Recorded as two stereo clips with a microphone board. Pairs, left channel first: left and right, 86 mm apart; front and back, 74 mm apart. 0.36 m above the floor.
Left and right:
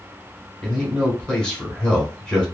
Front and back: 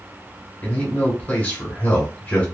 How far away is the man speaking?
About 1.2 m.